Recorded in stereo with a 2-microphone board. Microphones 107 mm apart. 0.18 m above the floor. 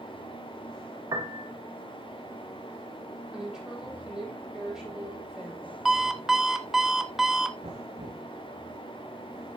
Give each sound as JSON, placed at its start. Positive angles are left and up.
{"t": 1.1, "sound": "a piano", "side_deg": -35, "distance_m": 2.5}
{"t": 3.3, "sound": "a woman speaking", "side_deg": -5, "distance_m": 6.5}
{"t": 5.8, "sound": "an alarm clock", "side_deg": 0, "distance_m": 0.8}
{"t": 7.6, "sound": "knocking", "side_deg": -65, "distance_m": 2.5}